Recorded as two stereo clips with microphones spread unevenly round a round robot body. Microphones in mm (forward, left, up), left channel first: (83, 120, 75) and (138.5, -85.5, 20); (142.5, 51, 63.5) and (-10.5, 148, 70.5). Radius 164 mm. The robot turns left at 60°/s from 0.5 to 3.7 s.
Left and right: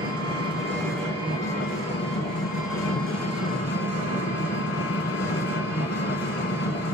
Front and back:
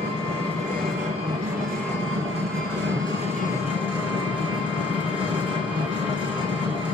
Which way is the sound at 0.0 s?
85° right.